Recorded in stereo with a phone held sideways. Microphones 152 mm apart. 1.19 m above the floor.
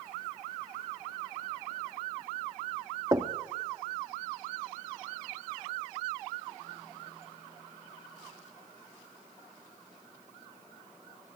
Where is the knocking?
25° right (ahead or behind), 1.4 m.